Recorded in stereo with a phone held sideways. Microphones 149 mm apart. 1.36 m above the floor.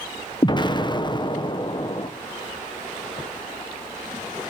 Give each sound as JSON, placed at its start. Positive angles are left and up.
{"t": 0.4, "sound": "an explosion", "side_deg": 30, "distance_m": 0.8}